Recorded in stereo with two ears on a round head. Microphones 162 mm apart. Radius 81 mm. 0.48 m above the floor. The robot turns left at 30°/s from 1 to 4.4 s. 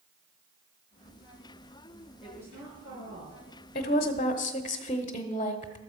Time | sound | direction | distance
2.2 | a woman speaking | 5° right | 8 m
3.8 | a woman speaking | 40° left (ahead or behind) | 1.1 m